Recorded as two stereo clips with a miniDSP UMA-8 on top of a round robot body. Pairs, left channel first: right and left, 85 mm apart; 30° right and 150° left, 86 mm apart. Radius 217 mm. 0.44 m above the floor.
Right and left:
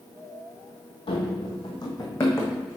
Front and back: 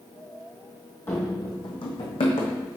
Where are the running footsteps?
95° right, 1.1 m; by 2.5 s 25° right, 1.8 m.